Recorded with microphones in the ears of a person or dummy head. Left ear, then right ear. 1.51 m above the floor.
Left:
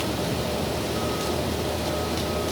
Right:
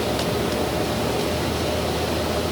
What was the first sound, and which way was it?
Only background noise.